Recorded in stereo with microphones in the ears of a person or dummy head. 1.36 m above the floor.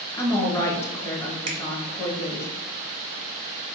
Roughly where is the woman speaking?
Centre.